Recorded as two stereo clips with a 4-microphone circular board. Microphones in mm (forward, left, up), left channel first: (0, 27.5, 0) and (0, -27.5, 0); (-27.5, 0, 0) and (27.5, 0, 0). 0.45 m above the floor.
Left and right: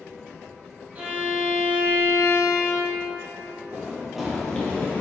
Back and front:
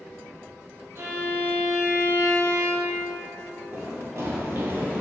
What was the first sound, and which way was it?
A violin, 25° right.